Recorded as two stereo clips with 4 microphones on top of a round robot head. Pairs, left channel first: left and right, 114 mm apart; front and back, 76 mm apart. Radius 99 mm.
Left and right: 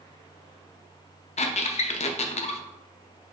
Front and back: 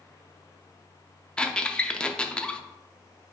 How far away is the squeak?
About 0.5 m.